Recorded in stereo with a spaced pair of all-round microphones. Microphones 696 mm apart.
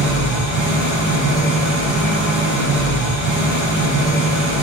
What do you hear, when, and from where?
0.0 s an engine running: 50° right (ahead or behind), 5 m